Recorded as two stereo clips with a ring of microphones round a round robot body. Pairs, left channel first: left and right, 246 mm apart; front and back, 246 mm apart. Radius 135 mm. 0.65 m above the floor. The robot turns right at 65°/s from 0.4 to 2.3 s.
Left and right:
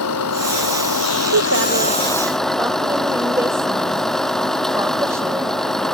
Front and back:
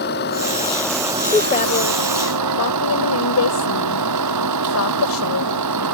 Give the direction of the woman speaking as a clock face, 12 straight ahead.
2 o'clock.